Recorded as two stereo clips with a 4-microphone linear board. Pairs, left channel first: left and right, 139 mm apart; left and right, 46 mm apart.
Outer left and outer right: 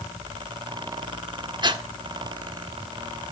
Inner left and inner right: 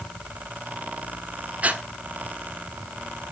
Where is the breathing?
30° right (ahead or behind), 1.6 m.